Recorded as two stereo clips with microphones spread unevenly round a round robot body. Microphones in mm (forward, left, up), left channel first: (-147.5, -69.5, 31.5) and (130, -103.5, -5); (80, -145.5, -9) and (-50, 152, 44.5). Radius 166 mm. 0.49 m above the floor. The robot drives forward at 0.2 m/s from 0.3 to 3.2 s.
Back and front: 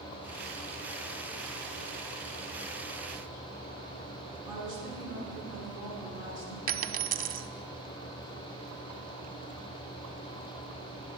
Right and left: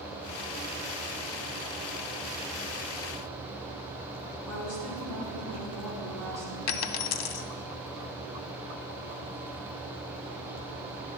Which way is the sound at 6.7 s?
55° right.